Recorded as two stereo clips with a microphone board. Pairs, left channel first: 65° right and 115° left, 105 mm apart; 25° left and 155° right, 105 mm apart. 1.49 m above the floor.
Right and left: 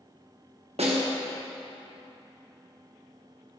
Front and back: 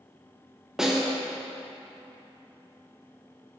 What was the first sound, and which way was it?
A snare drum, 115° left.